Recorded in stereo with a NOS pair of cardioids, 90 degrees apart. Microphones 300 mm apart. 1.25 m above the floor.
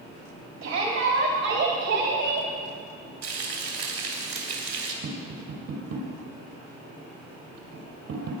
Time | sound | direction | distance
0.6 | a shout | 65° right | 4 m
3.2 | frying | 65° right | 4.5 m
5.0 | tapping | 60° right | 5 m